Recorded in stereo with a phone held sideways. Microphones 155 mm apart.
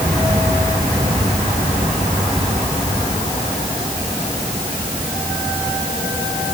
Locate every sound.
Only background noise.